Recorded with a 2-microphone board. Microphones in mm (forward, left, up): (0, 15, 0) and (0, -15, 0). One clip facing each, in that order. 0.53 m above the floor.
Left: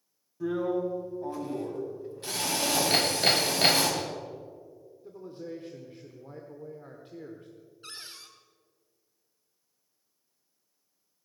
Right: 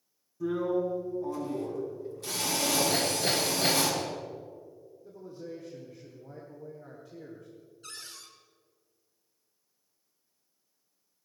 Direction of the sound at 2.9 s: 60° left (ahead or behind).